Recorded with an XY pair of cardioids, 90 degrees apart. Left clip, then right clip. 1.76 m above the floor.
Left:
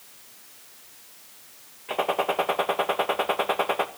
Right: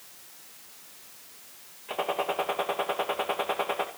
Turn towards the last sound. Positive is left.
turn(degrees=35)